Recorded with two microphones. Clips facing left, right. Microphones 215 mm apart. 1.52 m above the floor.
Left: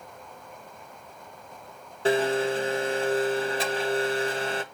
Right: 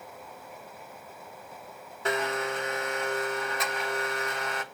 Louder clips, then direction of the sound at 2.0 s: Left 7 dB; 30° left (ahead or behind).